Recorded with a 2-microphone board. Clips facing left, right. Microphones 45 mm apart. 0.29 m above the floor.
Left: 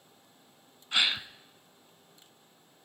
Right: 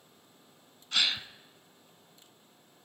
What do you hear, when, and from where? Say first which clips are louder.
0.9 s a gasp: left 2 dB; 20° left (ahead or behind), 0.6 m